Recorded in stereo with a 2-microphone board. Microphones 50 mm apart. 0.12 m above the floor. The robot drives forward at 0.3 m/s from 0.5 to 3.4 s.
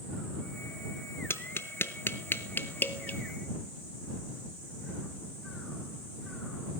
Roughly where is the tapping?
Left.